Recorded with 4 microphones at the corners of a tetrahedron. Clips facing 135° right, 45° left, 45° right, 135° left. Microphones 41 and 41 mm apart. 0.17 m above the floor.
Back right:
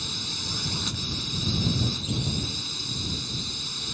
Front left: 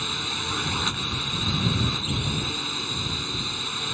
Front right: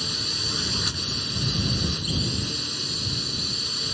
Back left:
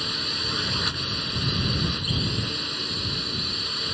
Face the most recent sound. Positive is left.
turn(degrees=70)